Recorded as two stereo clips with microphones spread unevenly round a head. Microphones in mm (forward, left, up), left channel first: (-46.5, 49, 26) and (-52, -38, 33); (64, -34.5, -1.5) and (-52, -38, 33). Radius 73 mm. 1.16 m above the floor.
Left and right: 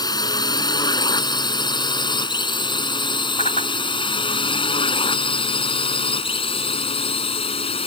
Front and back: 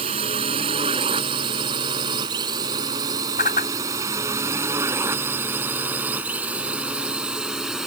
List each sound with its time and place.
0.0 s a drone: 130° left; by 7.9 s 95° left
3.4 s a whoosh: 45° left